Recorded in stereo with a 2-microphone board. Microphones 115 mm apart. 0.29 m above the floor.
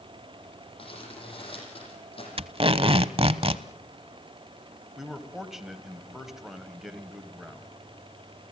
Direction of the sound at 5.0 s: 5° right (ahead or behind).